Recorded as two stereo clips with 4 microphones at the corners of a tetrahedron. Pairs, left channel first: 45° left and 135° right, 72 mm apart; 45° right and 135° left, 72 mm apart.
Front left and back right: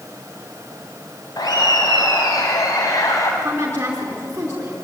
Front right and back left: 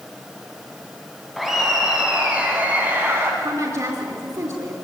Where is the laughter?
50° left, 2.5 m; by 3.3 s 80° left, 3 m.